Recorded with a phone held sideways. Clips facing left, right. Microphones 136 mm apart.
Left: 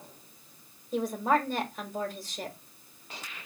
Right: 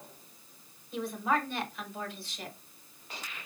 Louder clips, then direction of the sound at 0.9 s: Left 4 dB; 45° left (ahead or behind).